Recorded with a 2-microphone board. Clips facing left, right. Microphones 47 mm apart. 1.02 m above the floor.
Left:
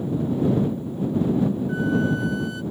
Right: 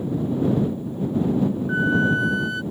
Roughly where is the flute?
Right.